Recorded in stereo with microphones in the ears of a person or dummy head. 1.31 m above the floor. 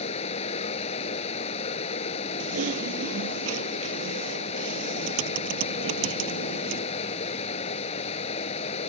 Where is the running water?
35° left (ahead or behind).